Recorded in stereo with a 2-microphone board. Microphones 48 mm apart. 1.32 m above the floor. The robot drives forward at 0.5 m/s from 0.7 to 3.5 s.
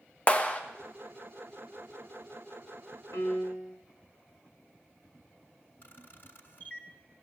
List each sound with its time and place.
0.3 s a clap: 30° left (ahead or behind), 1.1 m
3.1 s a piano: 75° left (ahead or behind), 3 m; by 3.8 s 70° left (ahead or behind), 3 m
5.8 s a camera shutter: 50° left (ahead or behind), 1.8 m